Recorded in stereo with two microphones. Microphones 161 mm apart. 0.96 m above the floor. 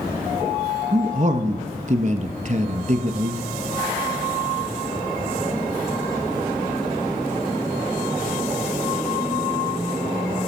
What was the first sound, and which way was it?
A man speaking, 45° right (ahead or behind).